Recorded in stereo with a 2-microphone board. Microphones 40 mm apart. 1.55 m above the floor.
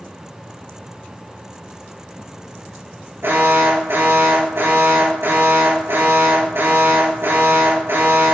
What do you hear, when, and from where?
3.2 s an alarm: 75° right (ahead or behind), 3 m